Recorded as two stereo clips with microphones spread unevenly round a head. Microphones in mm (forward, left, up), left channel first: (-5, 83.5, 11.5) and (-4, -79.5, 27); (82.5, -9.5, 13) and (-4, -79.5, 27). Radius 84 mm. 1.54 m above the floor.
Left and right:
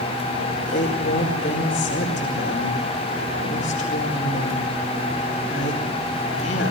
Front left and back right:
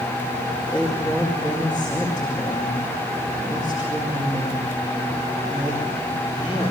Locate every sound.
0.7 s a woman speaking: 140° left, 4.5 m